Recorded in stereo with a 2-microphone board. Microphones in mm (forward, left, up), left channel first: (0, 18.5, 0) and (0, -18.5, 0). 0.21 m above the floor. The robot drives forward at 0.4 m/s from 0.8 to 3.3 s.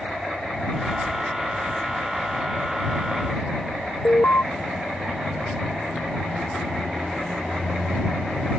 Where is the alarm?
80° left.